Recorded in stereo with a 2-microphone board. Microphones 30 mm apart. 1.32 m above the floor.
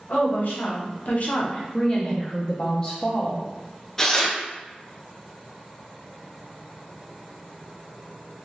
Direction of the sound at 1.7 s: 30° left (ahead or behind).